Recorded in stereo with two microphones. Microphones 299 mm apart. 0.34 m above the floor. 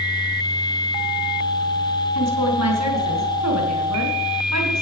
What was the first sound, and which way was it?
A woman speaking, 60° right (ahead or behind).